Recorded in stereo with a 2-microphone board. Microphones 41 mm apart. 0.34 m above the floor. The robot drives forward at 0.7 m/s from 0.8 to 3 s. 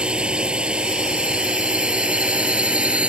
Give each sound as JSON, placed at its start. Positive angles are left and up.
{"t": 0.0, "sound": "a drone", "side_deg": -30}